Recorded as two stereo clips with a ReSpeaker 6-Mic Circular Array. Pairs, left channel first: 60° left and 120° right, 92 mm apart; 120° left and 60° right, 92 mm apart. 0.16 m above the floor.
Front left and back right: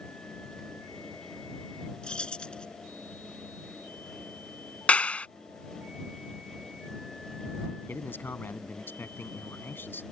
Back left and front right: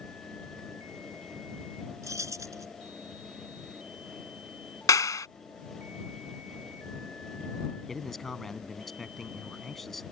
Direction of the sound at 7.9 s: 35° left.